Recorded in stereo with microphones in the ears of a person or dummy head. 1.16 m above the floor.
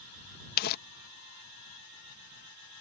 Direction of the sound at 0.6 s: 55° left (ahead or behind).